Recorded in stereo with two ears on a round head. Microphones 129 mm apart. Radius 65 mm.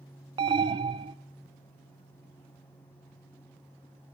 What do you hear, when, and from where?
0.4 s an alarm: 30° right (ahead or behind), 0.7 m